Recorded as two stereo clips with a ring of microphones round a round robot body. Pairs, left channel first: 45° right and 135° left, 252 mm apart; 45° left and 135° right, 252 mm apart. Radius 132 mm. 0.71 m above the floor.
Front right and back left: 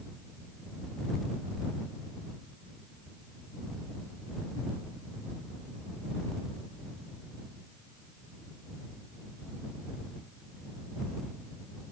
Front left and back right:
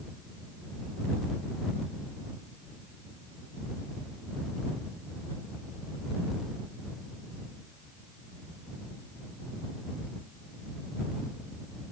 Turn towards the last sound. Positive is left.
No sound to turn to.